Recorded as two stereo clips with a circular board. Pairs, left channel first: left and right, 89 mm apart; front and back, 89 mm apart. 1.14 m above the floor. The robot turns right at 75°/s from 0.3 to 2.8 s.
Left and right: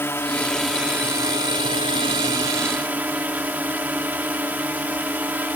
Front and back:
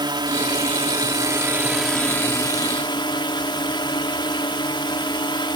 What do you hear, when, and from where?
0.0 s a drone: 155° left; by 5.6 s 20° right